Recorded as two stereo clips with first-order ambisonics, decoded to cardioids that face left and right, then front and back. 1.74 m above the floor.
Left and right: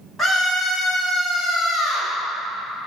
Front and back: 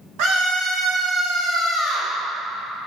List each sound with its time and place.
0.2 s a scream: 175° left, 1.2 m; by 2.1 s 110° left, 1.8 m